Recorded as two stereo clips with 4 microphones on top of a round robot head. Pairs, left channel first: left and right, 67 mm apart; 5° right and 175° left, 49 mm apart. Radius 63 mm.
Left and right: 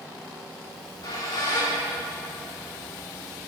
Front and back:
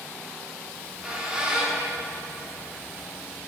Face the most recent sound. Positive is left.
turn(degrees=100)